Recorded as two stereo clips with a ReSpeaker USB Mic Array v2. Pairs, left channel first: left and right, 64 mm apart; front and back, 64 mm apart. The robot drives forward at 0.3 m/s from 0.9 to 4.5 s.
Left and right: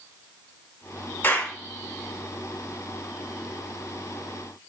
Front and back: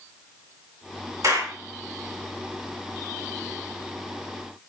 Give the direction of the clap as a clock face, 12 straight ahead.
7 o'clock.